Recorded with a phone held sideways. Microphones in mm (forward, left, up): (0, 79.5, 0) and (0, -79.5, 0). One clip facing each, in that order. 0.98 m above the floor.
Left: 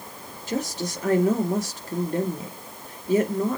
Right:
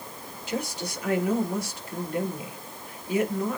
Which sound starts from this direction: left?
A woman speaking, at 0.5 s.